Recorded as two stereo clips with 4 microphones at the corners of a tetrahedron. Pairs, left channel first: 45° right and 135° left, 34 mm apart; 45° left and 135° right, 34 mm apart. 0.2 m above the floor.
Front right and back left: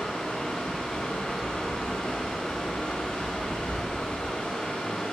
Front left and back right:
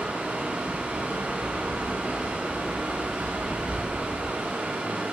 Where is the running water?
115° right, 8 m.